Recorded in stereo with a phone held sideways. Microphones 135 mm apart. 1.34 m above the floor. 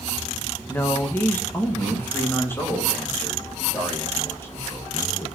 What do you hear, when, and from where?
0.7 s a man speaking: 15° left (ahead or behind), 1.1 m